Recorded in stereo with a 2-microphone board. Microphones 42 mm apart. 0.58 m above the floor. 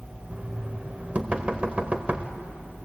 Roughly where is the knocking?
Right.